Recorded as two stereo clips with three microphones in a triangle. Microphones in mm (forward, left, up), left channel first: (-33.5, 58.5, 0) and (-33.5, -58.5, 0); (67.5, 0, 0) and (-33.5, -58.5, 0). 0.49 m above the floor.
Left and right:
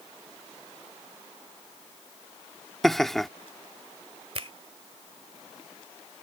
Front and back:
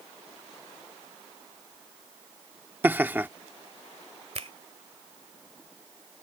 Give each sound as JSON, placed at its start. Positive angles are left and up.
{"t": 2.8, "sound": "laughter", "azimuth_deg": 170}
{"t": 4.3, "sound": "a finger snap", "azimuth_deg": -125}